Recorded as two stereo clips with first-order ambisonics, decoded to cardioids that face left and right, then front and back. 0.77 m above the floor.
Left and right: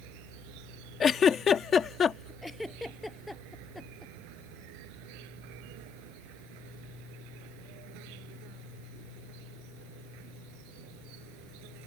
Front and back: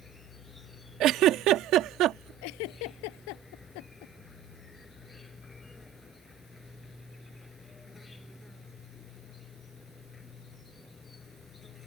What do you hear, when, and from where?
0.0 s an insect: 80° right
1.0 s a giggle: 145° left
2.4 s a giggle: 5° left